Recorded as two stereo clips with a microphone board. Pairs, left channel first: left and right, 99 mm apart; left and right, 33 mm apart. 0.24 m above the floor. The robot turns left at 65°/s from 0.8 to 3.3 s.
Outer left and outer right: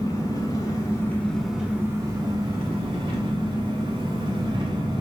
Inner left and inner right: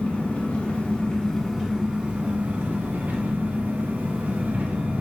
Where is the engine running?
45° left, 1.1 m; by 5.0 s 120° right, 1.1 m.